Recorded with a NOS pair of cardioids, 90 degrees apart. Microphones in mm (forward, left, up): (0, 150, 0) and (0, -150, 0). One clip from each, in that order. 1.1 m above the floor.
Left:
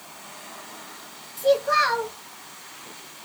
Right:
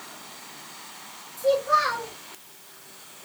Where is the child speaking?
30° left, 1.4 m.